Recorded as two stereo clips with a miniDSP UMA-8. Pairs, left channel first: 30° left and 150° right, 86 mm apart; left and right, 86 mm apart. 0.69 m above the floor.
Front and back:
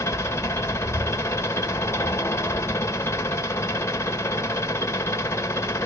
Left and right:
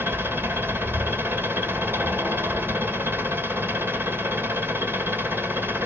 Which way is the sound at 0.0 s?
25° right.